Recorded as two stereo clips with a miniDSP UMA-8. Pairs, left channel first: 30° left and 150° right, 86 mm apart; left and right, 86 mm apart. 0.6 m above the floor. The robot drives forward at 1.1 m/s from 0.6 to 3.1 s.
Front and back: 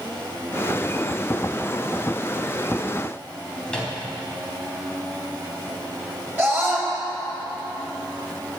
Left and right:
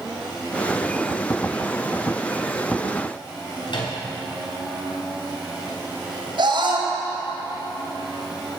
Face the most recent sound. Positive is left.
turn(degrees=-90)